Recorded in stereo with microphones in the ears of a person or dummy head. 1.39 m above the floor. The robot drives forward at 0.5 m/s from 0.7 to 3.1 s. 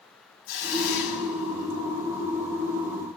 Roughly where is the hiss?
Left.